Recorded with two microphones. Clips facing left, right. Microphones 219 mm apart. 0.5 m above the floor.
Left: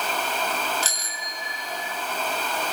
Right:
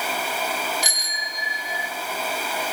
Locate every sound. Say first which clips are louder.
0.8 s a bicycle bell: right 1 dB; 15° right (ahead or behind), 4.5 m; by 1.9 s 10° right (ahead or behind), 4 m